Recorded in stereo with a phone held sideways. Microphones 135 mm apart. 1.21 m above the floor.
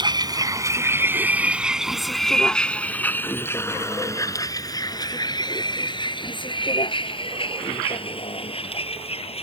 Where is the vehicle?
35° right (ahead or behind); by 9.4 s 45° left (ahead or behind).